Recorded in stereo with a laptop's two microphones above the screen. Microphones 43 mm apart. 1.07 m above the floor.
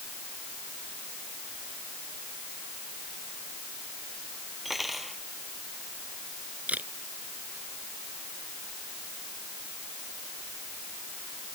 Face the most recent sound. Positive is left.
turn(degrees=-40)  # may be behind; listen again after turning